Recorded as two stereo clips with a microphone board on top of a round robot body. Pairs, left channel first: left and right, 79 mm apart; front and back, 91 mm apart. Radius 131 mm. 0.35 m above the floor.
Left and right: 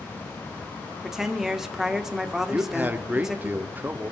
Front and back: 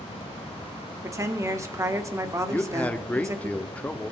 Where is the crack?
No crack in this recording.